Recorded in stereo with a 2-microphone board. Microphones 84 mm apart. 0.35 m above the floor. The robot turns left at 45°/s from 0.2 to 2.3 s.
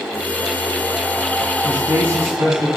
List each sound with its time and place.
1.6 s a man speaking: 35° right (ahead or behind), 2.5 m; by 2.7 s 60° right (ahead or behind), 2.5 m